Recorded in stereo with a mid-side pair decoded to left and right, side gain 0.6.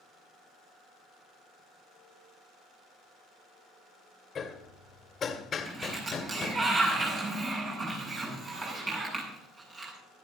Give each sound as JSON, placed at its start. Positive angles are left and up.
{"t": 4.3, "sound": "hammering", "azimuth_deg": 35, "distance_m": 2.0}
{"t": 5.7, "sound": "a sliding door", "azimuth_deg": -35, "distance_m": 8.5}